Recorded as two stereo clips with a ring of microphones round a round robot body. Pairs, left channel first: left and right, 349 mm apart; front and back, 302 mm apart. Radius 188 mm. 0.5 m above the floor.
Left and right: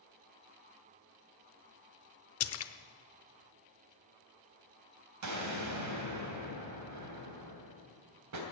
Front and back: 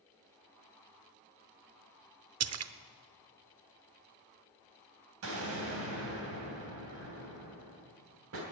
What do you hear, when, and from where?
2.4 s a splash: 140° left, 0.8 m
5.2 s an explosion: 130° right, 3 m